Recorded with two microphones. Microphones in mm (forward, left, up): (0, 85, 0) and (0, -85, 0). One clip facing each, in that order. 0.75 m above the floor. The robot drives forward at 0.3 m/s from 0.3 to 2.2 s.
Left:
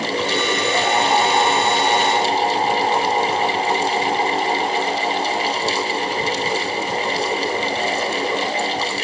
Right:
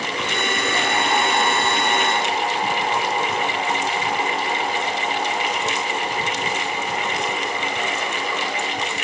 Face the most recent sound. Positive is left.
No sound to turn to.